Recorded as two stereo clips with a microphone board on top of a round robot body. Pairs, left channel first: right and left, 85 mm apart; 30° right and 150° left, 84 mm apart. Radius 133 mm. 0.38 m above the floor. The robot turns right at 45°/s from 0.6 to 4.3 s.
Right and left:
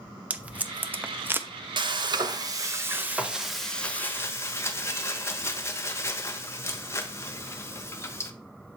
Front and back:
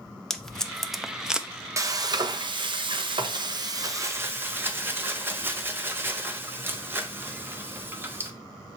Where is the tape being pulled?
45° left, 0.8 m; by 1.5 s 85° left, 0.8 m.